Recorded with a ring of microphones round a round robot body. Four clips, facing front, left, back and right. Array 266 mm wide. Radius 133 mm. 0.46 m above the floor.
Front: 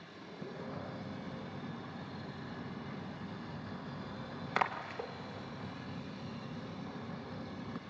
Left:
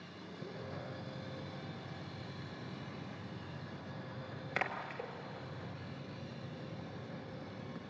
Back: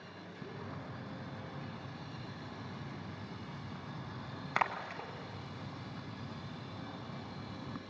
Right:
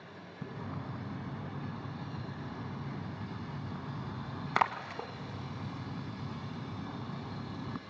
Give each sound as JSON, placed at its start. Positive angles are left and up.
{"t": 0.4, "sound": "a splash", "azimuth_deg": -90, "distance_m": 1.1}